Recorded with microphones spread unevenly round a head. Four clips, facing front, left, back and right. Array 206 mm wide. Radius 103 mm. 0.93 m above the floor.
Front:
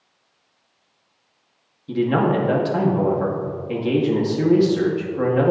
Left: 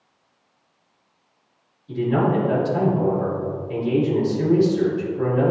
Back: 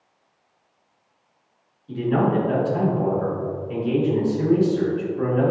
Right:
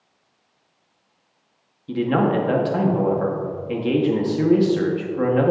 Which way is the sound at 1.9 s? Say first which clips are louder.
Right 1 dB, front 2 dB; 45° right.